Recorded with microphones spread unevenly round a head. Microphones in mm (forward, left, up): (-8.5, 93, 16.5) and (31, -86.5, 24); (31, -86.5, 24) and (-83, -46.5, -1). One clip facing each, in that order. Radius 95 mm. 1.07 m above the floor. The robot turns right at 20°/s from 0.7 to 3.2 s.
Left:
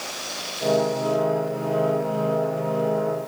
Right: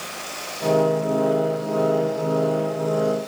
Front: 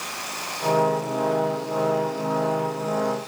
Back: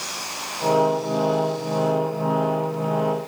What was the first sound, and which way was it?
Only background noise.